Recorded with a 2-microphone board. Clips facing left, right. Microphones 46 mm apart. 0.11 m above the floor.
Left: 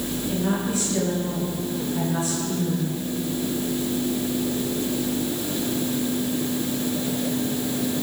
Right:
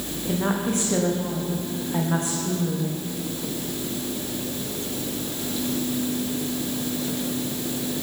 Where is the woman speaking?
65° right (ahead or behind), 9.5 m.